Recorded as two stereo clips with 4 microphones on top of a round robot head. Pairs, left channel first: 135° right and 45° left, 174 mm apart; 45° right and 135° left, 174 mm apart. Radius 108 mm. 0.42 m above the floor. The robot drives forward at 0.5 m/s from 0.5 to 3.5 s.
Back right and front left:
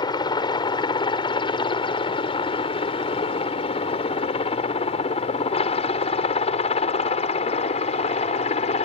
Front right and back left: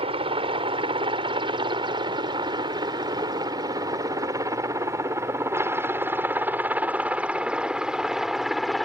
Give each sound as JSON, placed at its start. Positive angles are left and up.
{"t": 0.0, "sound": "a helicopter", "azimuth_deg": 175}